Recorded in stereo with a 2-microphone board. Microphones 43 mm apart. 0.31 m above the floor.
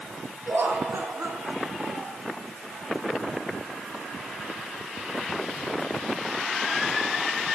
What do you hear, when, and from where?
0.5 s laughter: 65° right (ahead or behind), 4.5 m; by 2.2 s 50° right (ahead or behind), 4.5 m